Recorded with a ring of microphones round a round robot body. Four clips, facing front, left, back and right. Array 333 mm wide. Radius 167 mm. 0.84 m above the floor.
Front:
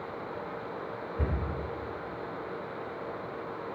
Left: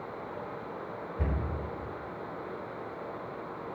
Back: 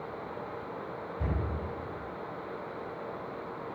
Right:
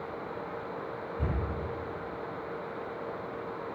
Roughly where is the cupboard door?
Ahead.